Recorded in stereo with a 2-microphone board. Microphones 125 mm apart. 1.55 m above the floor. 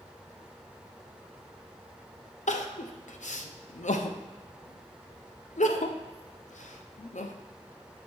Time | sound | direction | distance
2.5 | crying | 75° left (ahead or behind) | 0.6 m